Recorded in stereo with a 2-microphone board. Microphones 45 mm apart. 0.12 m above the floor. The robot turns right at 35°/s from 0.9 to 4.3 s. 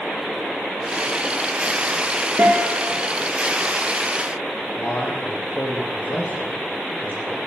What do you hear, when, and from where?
2.4 s a guitar: 45° right (ahead or behind), 4 m; by 2.9 s 30° right (ahead or behind), 4 m
4.8 s a man speaking: 40° left (ahead or behind), 7 m